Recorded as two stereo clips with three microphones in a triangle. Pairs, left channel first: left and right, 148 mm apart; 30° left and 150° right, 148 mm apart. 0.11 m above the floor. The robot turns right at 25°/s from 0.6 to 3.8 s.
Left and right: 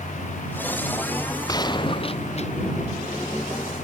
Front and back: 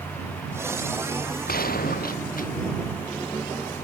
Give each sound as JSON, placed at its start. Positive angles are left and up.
{"t": 1.5, "sound": "a gunshot", "azimuth_deg": 25}